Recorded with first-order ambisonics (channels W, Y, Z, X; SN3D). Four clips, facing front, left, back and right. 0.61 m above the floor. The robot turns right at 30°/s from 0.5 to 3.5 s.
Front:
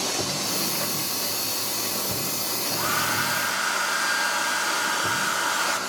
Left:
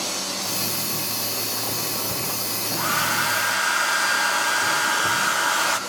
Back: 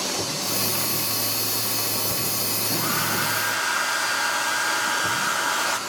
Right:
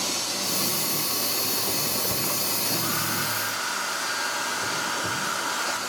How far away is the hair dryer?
About 0.9 m.